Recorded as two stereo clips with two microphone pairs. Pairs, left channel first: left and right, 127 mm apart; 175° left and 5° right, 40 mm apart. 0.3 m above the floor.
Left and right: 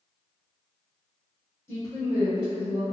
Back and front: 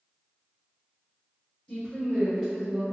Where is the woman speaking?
135° left, 1.7 m; by 2.8 s 70° left, 2 m.